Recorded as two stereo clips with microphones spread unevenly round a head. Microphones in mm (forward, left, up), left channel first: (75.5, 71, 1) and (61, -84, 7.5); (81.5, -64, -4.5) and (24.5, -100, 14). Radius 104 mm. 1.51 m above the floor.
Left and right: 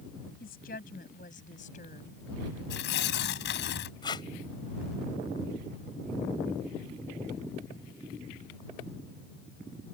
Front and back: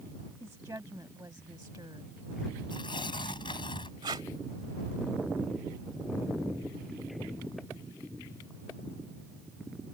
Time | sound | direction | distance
0.4 | a woman speaking | 135° left | ?
2.7 | tearing paper | 85° left | ?
4.0 | tape being pulled | 155° left | ?